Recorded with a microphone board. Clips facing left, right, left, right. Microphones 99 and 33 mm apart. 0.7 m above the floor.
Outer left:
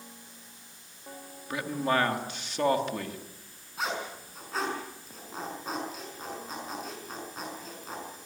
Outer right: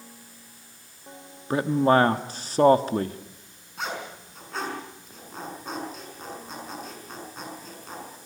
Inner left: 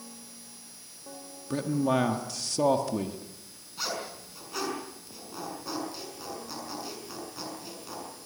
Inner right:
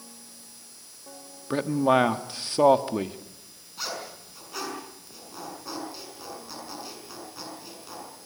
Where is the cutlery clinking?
No cutlery clinking in this recording.